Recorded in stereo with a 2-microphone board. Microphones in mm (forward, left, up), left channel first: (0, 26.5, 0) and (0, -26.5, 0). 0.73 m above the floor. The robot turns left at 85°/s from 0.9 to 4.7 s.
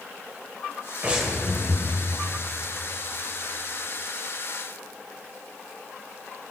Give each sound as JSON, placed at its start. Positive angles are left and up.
{"t": 1.0, "sound": "breathing", "azimuth_deg": -150, "distance_m": 3.0}